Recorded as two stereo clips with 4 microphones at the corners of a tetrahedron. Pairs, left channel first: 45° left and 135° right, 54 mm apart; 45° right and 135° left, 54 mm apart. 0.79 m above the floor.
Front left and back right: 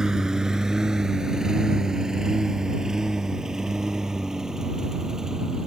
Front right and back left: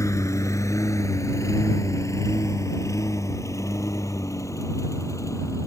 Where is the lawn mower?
55° right.